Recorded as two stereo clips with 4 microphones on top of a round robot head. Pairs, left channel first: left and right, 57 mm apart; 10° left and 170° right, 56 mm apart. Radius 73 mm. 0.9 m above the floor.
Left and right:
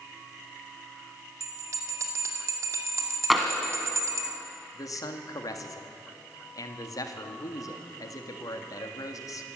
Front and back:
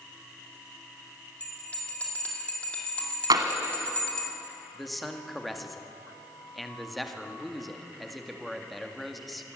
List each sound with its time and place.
1.4 s a bell: 60° right, 2.5 m
3.3 s tapping: straight behind, 1.3 m
4.7 s a man speaking: 100° left, 1.9 m